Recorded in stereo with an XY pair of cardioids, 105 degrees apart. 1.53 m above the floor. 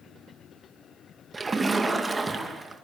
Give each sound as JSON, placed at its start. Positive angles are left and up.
{"t": 1.3, "sound": "a splash", "azimuth_deg": -30, "distance_m": 2.0}